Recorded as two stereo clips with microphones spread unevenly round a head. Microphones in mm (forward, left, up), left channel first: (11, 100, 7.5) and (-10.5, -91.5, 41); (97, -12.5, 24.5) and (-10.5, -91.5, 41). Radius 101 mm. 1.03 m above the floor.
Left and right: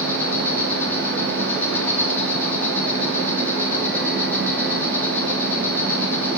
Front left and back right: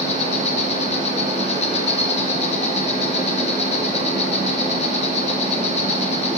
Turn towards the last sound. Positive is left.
turn(degrees=5)